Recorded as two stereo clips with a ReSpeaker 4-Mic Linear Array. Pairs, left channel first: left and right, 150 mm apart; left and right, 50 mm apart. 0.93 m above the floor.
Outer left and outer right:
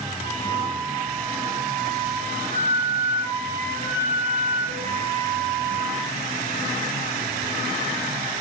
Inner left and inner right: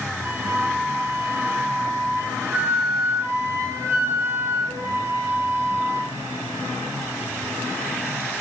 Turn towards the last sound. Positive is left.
turn(degrees=-60)  # may be behind; listen again after turning